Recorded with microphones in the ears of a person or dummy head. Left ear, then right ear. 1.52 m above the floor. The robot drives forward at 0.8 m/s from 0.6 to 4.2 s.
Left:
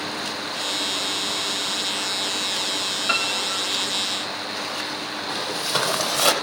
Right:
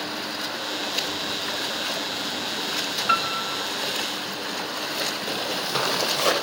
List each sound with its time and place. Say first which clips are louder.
3.1 s a piano: even; centre (ahead or behind), 2.5 m
5.3 s footsteps: left 2 dB; 10° left (ahead or behind), 3.5 m; by 6.3 s 15° left (ahead or behind), 4 m